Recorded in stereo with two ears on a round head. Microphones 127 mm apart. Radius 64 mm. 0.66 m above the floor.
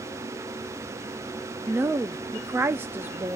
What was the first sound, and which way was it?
A woman speaking, 15° right (ahead or behind).